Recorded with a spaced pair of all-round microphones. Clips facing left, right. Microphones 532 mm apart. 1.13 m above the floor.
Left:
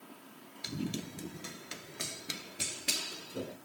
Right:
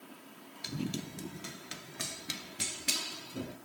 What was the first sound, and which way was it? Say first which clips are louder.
Running footsteps: even; centre (ahead or behind).